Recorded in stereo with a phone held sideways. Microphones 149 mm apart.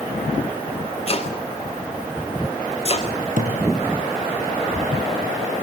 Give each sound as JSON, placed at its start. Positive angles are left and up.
{"t": 1.1, "sound": "chopping", "side_deg": 40, "distance_m": 5.0}
{"t": 3.4, "sound": "a thud", "side_deg": -65, "distance_m": 5.5}